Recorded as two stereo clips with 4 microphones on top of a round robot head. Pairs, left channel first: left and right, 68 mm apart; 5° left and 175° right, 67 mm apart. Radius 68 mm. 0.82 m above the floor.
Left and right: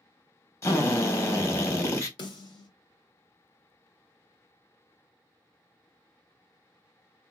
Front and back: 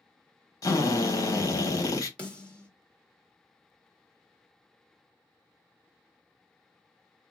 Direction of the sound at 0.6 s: 45° left.